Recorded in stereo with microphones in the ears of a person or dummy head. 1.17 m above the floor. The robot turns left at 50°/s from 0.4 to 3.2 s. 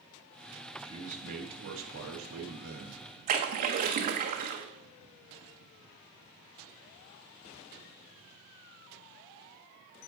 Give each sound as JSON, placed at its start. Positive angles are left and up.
{"t": 0.8, "sound": "a man speaking", "azimuth_deg": -30, "distance_m": 1.4}
{"t": 3.3, "sound": "a splash", "side_deg": -45, "distance_m": 0.7}